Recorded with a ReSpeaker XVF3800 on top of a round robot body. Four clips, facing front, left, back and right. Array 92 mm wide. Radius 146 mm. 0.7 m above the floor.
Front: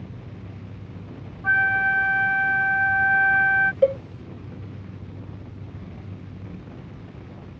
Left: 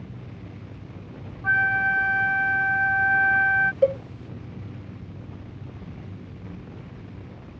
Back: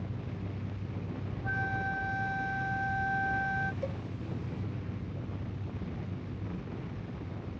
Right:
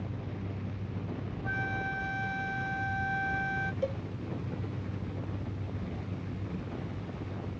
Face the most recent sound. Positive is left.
turn(degrees=35)